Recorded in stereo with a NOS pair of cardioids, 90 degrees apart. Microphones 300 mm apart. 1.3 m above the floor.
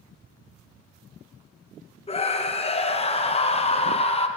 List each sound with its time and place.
2.1 s a scream: 20° left, 0.7 m